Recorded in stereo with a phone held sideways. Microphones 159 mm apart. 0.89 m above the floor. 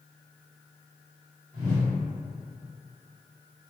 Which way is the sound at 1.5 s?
60° right (ahead or behind).